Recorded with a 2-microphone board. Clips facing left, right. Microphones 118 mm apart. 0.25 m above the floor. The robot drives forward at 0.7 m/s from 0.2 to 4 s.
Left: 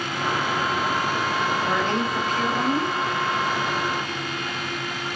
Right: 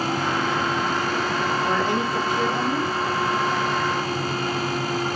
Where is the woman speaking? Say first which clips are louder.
Right 1 dB; 10° right (ahead or behind), 6 m; by 2.9 s 15° right (ahead or behind), 5 m.